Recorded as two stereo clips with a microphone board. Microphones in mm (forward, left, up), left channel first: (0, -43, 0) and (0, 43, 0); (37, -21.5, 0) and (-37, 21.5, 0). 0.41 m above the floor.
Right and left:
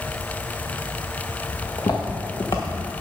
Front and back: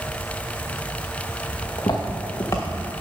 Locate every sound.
1.6 s footsteps: 55° right, 1.6 m; by 3.0 s 90° right, 1.4 m